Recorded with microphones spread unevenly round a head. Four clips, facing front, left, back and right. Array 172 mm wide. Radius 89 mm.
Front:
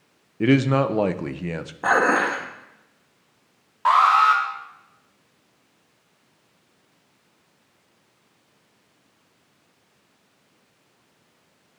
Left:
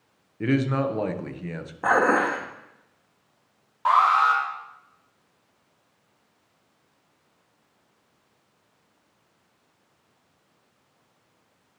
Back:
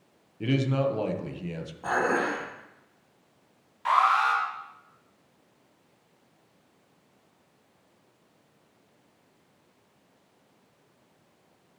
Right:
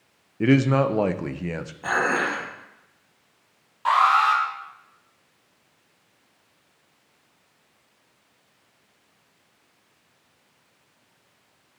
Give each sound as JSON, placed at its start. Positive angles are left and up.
{"t": 0.4, "sound": "a man speaking", "azimuth_deg": -20, "distance_m": 0.7}
{"t": 1.8, "sound": "dishes clattering", "azimuth_deg": 35, "distance_m": 1.4}
{"t": 3.9, "sound": "an alarm", "azimuth_deg": 15, "distance_m": 3.0}